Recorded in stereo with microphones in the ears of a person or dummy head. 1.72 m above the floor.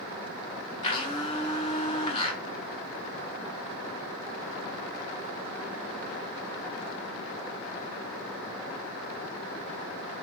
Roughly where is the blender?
Left.